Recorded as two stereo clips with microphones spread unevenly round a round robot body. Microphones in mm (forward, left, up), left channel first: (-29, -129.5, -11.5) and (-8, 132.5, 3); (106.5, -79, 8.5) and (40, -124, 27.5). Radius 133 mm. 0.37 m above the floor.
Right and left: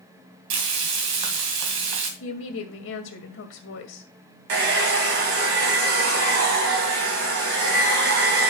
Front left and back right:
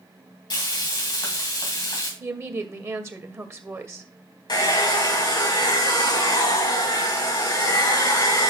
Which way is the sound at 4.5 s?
50° left.